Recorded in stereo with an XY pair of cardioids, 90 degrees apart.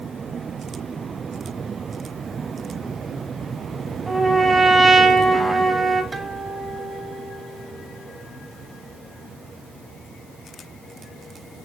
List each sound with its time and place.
4.1 s a trumpet: 20° right, 4 m
6.1 s a guitar: 25° right, 4 m